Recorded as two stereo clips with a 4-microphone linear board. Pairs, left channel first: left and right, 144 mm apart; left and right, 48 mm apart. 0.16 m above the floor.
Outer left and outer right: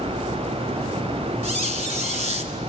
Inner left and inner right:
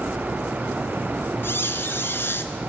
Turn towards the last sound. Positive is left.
turn(degrees=60)  # may be behind; listen again after turning